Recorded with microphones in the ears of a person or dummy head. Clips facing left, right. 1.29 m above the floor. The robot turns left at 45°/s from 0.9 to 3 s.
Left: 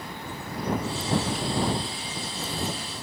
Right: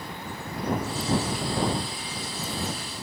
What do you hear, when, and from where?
Only background noise.